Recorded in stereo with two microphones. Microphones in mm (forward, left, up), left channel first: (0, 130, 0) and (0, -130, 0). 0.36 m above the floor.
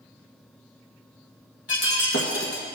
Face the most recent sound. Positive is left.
turn(degrees=55)  # may be behind; listen again after turning